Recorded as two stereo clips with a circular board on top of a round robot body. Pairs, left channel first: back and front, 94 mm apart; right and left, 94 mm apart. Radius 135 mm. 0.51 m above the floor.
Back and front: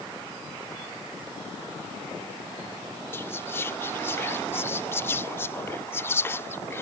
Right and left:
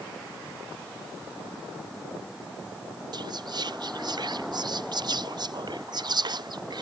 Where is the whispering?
120° left.